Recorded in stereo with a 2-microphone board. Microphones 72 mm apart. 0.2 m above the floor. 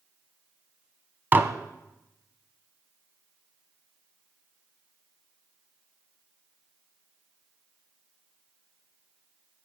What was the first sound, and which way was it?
Dishes clattering, 25° right (ahead or behind).